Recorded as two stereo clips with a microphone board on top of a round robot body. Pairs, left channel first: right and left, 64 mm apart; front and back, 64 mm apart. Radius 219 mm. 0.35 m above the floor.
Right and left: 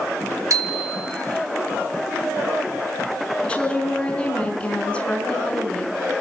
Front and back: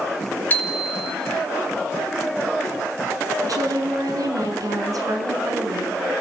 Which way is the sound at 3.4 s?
160° right.